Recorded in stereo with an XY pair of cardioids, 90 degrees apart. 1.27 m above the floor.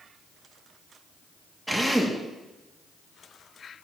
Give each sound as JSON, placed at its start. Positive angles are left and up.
{"t": 1.7, "sound": "a drill", "azimuth_deg": -15, "distance_m": 2.5}